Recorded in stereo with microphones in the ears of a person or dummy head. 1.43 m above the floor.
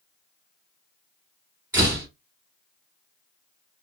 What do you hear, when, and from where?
1.7 s a door slam: 10° right (ahead or behind), 2.5 m